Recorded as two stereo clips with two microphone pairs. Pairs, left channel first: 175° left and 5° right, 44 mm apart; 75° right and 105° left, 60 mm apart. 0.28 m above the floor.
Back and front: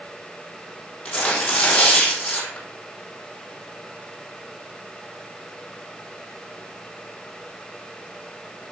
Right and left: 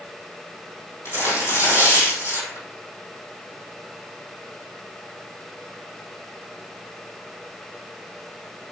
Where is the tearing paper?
115° right, 3.5 m.